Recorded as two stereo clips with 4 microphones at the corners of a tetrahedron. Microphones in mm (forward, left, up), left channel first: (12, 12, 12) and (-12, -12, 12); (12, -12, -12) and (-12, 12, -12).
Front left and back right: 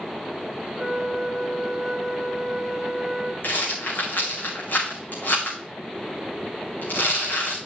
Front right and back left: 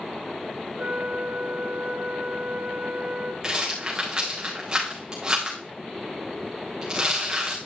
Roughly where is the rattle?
Ahead left.